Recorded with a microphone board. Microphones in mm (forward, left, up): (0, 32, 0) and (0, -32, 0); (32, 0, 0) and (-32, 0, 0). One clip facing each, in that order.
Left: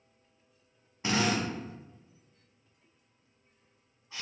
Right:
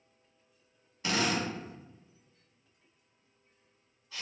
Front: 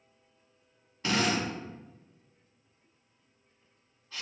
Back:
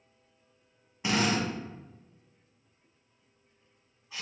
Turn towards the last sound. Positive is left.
turn(degrees=120)